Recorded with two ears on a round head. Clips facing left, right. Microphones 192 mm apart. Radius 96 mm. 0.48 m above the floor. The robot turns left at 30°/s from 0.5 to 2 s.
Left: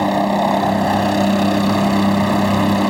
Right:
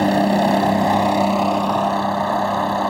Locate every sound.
0.0 s a helicopter: 175° right; by 2.9 s 140° left